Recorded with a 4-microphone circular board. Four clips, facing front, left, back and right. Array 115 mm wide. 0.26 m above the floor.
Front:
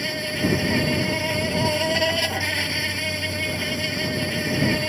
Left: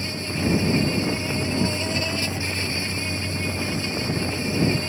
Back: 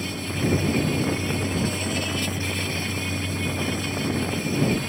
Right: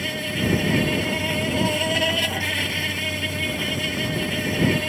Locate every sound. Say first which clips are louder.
0.0 s an insect: right 1 dB, front 2 dB; 25° right